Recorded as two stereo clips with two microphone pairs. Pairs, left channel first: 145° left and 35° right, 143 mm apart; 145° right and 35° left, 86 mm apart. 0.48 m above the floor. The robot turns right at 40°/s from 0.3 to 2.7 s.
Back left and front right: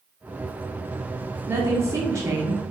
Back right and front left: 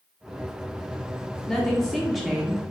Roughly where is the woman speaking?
Right.